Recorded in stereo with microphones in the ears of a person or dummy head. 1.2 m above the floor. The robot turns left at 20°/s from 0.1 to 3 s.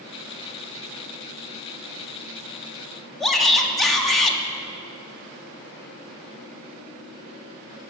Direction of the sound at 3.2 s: Centre (ahead or behind).